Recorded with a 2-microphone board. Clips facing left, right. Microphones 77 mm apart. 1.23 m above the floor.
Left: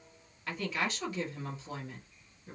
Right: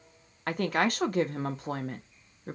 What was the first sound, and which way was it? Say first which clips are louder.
A woman speaking: right 7 dB; 55° right (ahead or behind).